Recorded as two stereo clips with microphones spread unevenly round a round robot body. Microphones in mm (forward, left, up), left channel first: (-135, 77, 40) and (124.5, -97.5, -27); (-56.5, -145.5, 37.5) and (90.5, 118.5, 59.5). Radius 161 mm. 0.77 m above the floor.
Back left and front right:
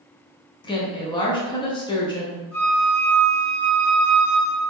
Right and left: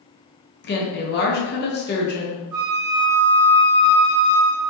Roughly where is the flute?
Ahead left.